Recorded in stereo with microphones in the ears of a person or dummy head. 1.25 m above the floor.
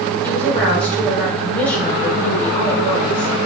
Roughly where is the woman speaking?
Centre.